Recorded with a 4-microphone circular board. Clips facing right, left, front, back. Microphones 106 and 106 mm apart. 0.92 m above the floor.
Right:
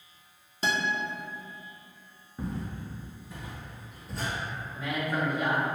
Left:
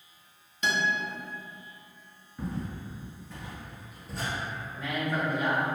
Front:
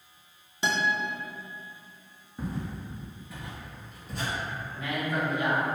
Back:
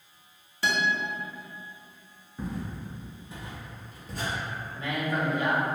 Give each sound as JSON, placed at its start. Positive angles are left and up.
{"t": 0.6, "sound": "a guitar", "azimuth_deg": -55, "distance_m": 0.5}
{"t": 2.4, "sound": "footsteps", "azimuth_deg": -65, "distance_m": 0.9}
{"t": 4.7, "sound": "a man speaking", "azimuth_deg": -170, "distance_m": 0.9}